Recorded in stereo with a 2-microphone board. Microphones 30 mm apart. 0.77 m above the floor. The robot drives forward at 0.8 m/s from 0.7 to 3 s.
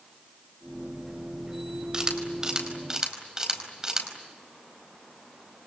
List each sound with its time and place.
1.9 s a camera shutter: 25° right (ahead or behind), 4 m; by 4.1 s 20° right (ahead or behind), 5 m